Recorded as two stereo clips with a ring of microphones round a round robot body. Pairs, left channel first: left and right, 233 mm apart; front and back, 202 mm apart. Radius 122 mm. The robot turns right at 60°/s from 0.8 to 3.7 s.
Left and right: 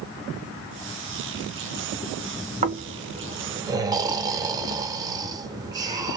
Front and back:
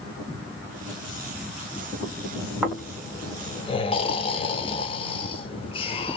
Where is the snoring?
95° right, 0.6 m; by 6.2 s 30° right, 0.6 m.